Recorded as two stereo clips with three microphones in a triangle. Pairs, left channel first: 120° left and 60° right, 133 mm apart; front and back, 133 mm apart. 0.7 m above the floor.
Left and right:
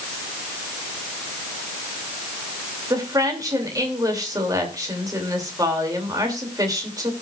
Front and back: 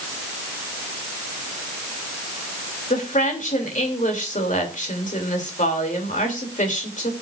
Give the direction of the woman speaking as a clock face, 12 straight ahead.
12 o'clock.